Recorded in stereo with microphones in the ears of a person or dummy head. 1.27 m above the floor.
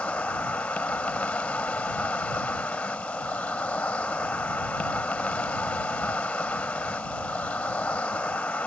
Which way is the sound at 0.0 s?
10° left (ahead or behind).